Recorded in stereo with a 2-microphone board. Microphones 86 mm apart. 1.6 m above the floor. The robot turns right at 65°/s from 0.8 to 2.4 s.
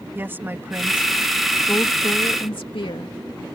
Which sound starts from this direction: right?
A woman speaking, at 0.1 s.